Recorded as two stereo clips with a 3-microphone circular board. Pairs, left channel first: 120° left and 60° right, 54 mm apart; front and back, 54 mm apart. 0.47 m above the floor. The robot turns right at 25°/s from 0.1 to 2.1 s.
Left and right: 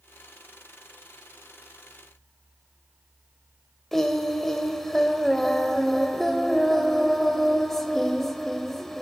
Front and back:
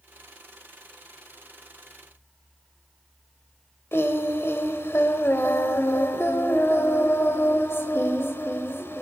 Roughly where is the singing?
Ahead left.